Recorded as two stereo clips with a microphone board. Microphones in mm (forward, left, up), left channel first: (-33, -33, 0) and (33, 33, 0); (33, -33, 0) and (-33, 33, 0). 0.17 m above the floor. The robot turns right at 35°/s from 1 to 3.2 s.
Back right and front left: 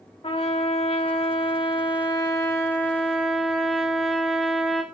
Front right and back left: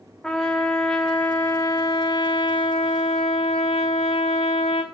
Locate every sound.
0.2 s a trumpet: 125° right, 2.5 m; by 4.8 s 50° right, 2.5 m